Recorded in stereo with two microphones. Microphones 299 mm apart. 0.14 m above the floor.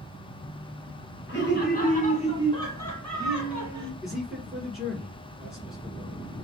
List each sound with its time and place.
1.3 s laughter: 40° left (ahead or behind), 1.6 m; by 3.9 s 15° right (ahead or behind), 1.4 m
4.0 s a man speaking: centre (ahead or behind), 1.6 m